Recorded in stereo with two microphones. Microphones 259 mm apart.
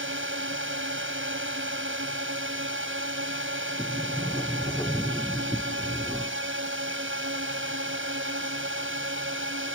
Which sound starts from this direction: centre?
A sliding door, at 3.8 s.